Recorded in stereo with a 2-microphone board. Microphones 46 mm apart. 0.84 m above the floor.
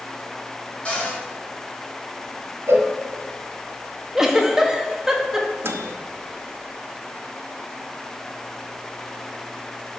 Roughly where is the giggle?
Centre.